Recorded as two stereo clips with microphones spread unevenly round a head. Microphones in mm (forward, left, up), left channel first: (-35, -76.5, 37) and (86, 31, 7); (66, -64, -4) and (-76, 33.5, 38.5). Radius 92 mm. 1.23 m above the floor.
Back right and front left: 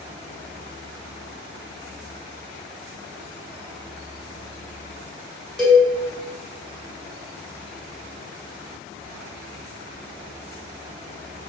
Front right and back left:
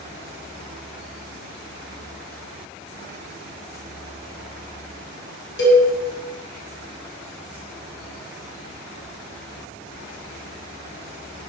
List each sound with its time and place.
5.6 s a cowbell: 50° right, 1.0 m